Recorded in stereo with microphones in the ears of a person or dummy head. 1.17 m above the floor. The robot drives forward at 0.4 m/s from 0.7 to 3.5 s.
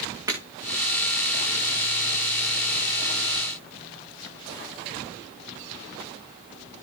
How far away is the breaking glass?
About 6.5 m.